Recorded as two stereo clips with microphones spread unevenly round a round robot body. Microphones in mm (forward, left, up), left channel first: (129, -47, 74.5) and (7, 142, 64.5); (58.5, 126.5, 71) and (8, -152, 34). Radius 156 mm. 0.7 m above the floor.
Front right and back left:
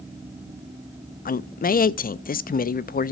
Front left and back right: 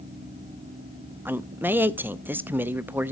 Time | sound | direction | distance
1.2 | a man speaking | 30° right | 0.5 m